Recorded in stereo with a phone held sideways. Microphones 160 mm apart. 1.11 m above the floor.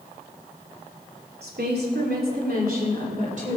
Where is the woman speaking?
85° right, 3 m; by 3.6 s 50° right (ahead or behind), 3.5 m.